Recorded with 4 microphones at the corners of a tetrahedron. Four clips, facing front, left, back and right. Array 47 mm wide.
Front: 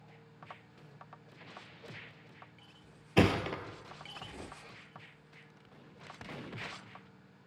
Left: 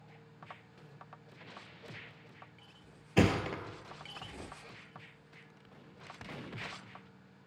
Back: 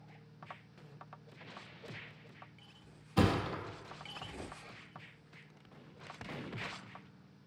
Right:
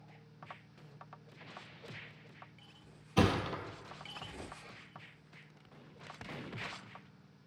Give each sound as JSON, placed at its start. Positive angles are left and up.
{"t": 3.2, "sound": "a thud", "azimuth_deg": 25, "distance_m": 0.6}